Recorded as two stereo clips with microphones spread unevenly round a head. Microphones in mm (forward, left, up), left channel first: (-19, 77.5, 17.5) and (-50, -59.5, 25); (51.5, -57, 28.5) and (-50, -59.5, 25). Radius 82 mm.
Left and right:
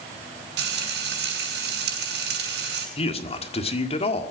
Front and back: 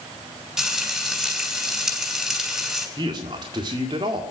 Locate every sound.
0.6 s frying: 95° right, 7 m
3.0 s a man speaking: 125° left, 1.8 m